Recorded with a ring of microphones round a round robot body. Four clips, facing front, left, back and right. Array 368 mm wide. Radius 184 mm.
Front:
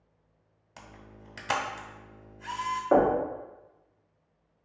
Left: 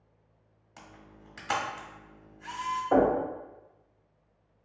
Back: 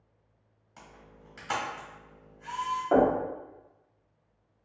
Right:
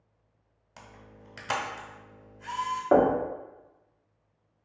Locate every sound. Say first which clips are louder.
0.8 s a camera shutter: right 1 dB, front 2 dB; 40° right, 1.1 m
2.9 s knocking: right 2 dB, front 1 dB; 80° right, 1.2 m